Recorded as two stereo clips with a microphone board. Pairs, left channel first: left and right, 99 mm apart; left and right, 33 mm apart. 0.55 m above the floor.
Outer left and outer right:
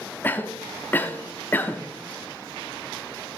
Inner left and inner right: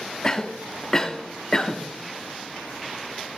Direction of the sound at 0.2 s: 20° left (ahead or behind).